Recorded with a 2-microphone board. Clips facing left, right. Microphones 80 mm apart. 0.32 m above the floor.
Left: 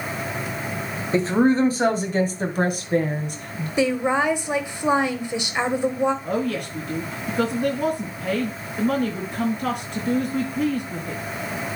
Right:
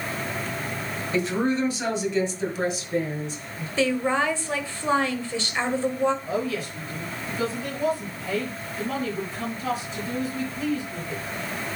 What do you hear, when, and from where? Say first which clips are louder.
1.1 s a woman speaking: left 6 dB; 35° left (ahead or behind), 1.8 m; by 3.7 s 60° left (ahead or behind), 2.5 m
3.8 s a woman speaking: left 2 dB; 20° left (ahead or behind), 1.3 m
6.2 s a woman speaking: left 3 dB; 60° left (ahead or behind), 4 m